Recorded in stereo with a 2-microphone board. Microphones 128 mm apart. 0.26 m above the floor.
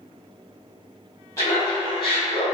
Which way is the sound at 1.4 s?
25° left (ahead or behind).